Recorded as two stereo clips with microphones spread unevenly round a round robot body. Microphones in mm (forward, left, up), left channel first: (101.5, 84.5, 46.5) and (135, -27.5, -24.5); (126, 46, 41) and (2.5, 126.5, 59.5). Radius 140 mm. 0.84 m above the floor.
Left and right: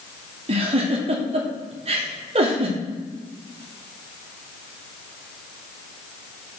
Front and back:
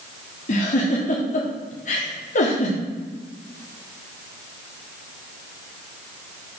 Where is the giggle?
70° right, 1.5 m.